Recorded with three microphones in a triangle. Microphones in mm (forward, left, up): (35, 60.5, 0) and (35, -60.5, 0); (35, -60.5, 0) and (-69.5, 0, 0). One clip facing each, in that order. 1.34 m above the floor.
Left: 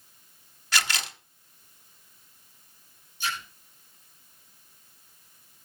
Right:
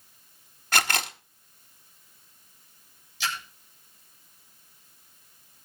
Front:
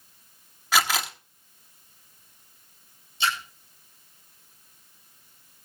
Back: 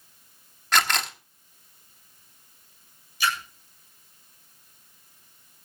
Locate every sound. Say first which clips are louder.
0.7 s a camera shutter: right 4 dB, even; 115° right, 1.2 m
3.2 s a splash: even, even; 95° right, 8 m